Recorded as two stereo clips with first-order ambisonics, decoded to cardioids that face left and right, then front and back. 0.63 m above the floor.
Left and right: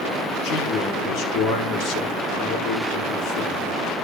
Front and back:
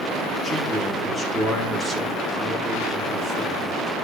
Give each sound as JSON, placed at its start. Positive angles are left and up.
{"t": 0.4, "sound": "a man speaking", "azimuth_deg": 100, "distance_m": 1.5}